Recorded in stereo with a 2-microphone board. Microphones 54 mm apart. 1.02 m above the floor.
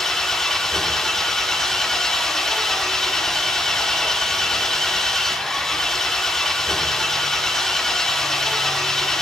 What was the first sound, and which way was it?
An engine running, 10° left (ahead or behind).